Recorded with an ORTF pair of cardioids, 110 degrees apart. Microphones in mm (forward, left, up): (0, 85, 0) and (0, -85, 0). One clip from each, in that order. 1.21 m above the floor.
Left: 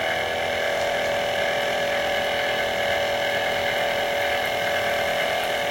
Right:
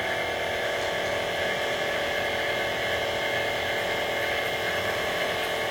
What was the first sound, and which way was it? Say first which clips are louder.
A machine running: left 4 dB; 40° left.